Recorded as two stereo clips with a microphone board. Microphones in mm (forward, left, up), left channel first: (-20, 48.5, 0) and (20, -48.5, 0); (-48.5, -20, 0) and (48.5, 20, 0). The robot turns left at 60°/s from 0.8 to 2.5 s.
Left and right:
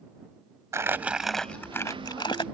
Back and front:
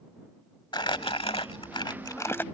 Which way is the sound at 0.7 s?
125° right.